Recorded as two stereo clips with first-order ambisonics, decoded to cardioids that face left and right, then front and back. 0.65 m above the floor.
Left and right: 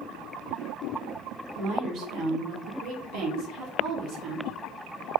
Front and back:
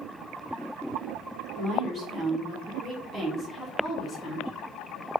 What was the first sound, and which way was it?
A woman speaking, 135° right.